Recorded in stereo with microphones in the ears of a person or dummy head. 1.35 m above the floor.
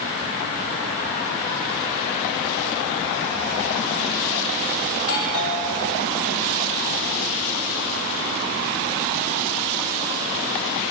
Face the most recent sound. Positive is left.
turn(degrees=70)  # may be behind; listen again after turning